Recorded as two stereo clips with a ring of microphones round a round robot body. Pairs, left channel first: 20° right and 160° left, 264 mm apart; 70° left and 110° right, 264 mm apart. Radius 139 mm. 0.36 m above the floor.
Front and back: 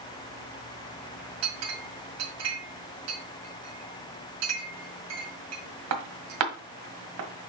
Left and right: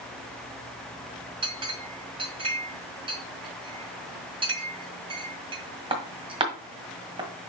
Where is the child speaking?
No child speaking in this recording.